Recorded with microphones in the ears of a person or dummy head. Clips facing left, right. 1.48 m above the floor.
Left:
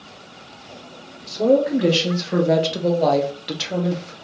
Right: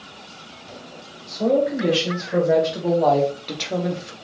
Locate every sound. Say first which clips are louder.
1.3 s a woman speaking: left 3 dB; 75° left (ahead or behind), 1.9 m; by 4.1 s 15° right (ahead or behind), 1.2 m